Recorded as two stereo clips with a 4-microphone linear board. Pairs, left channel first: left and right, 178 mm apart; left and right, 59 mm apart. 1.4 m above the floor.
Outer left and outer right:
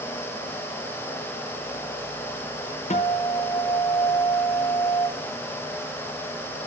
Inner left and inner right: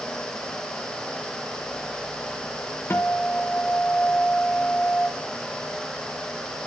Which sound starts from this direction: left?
A guitar, at 2.9 s.